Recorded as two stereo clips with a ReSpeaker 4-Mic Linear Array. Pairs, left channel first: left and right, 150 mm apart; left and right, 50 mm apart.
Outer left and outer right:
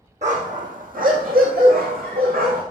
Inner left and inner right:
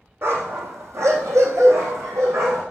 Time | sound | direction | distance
0.2 | a dog barking | 55° right (ahead or behind) | 2.5 m